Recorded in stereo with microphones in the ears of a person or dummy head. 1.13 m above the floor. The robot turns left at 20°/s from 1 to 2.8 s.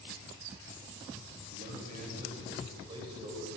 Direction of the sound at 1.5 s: 55° right (ahead or behind).